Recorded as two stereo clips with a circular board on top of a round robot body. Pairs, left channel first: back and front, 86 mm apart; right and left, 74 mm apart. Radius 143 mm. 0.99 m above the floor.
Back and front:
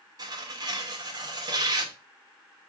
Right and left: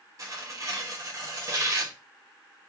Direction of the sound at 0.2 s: 45° left.